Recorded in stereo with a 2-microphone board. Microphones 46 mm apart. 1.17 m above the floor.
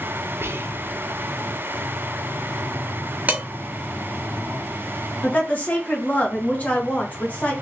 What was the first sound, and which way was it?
Whispering, 60° right (ahead or behind).